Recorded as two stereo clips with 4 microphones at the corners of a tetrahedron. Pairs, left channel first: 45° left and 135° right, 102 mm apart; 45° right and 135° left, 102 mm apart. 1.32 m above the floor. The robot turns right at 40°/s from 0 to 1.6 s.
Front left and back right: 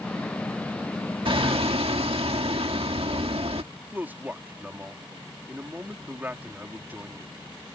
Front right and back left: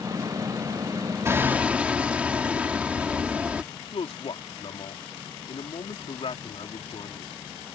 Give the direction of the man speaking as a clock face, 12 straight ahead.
2 o'clock.